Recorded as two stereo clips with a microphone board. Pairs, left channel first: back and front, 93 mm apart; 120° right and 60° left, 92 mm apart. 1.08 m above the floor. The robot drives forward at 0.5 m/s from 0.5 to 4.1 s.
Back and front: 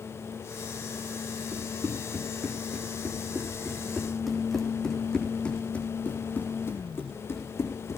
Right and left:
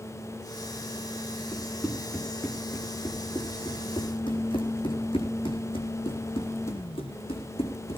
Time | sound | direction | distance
1.5 | running footsteps | 50° right | 5 m